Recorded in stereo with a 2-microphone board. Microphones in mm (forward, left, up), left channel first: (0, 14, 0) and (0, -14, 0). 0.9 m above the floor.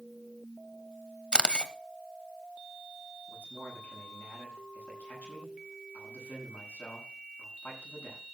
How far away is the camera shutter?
About 1.0 m.